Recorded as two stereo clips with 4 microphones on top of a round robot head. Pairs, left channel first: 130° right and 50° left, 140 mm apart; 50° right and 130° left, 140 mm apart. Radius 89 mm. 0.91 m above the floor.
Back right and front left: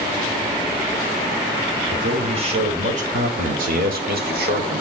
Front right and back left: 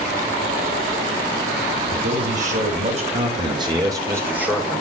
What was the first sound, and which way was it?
A man speaking, 105° left.